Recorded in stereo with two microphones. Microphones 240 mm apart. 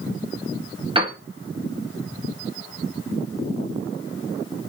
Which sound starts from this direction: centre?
A piano, at 0.9 s.